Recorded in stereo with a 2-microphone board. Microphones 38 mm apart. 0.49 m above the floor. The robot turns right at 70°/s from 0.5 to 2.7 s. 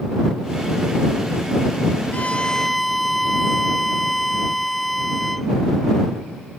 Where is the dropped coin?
I don't hear a dropped coin.